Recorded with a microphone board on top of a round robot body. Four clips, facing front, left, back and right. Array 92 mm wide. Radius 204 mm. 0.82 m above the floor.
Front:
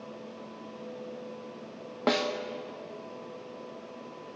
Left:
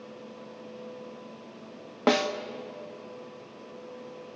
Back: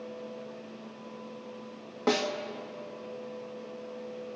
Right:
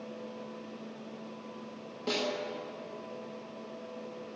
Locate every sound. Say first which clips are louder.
2.1 s a snare drum: left 9 dB, even; 70° left, 1.7 m